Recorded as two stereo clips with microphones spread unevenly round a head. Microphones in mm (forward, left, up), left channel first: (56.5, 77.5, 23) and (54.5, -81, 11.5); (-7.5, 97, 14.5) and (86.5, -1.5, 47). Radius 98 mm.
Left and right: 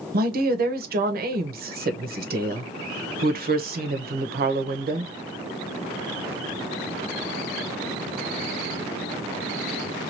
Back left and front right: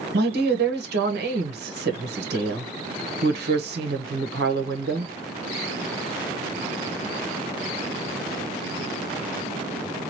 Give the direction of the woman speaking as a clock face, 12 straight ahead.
2 o'clock.